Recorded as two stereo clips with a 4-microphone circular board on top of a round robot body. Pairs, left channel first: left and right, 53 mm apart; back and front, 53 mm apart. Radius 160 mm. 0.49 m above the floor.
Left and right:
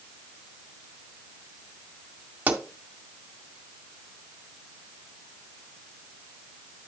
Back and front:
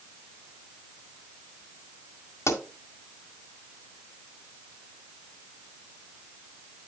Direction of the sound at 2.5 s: 150° right.